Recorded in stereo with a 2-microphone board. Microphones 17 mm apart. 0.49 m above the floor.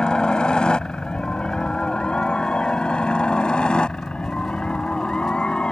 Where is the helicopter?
60° left (ahead or behind); by 5.7 s 65° left (ahead or behind).